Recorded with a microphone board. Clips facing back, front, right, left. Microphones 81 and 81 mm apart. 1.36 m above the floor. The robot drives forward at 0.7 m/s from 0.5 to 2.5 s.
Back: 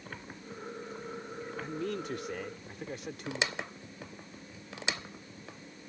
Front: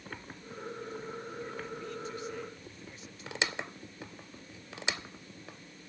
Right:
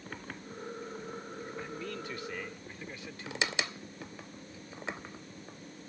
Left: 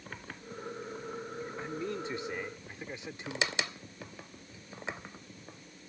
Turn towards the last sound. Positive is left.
turn(degrees=160)